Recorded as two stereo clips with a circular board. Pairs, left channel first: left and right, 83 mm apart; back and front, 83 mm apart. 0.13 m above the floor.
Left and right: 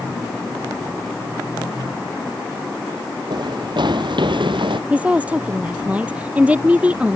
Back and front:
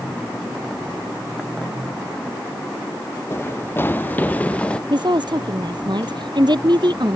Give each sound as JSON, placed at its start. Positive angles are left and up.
{"t": 3.3, "sound": "running footsteps", "azimuth_deg": -120}
{"t": 4.9, "sound": "a woman speaking", "azimuth_deg": -15}